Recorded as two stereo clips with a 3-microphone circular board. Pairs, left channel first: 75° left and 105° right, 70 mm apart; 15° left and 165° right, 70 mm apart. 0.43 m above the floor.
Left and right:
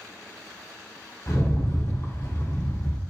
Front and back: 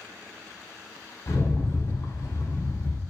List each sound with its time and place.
1.3 s a rattle: 40° left, 1.1 m